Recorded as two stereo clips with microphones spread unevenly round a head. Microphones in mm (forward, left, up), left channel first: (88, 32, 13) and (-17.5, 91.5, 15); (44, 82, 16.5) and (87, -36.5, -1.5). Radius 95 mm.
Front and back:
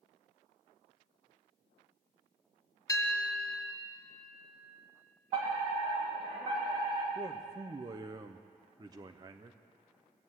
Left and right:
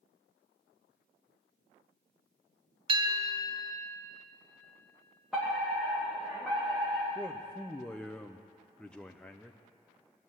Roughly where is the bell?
Right.